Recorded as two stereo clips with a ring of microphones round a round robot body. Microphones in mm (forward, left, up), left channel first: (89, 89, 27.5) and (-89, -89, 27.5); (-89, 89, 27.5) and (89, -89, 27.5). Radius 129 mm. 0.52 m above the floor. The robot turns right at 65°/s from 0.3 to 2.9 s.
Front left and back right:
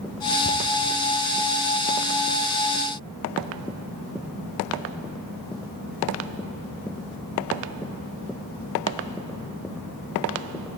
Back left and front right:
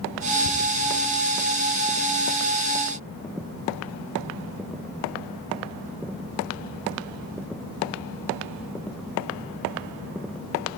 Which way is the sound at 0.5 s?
130° left.